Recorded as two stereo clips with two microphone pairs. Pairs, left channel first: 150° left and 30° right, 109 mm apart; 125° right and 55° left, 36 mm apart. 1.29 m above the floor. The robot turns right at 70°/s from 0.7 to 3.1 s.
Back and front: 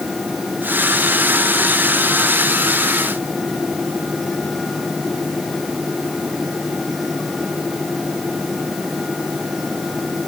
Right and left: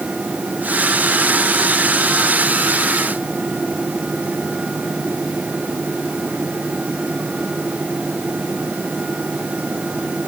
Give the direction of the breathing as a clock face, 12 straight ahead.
No breathing in this recording.